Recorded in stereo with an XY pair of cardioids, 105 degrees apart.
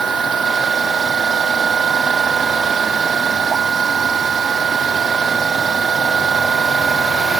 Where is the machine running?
45° right.